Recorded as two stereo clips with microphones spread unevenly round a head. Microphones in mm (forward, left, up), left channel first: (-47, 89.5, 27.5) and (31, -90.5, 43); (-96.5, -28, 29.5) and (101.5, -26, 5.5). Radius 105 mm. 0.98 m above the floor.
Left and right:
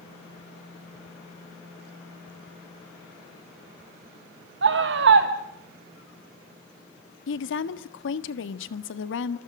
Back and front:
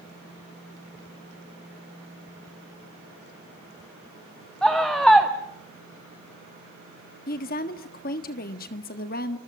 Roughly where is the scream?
Right.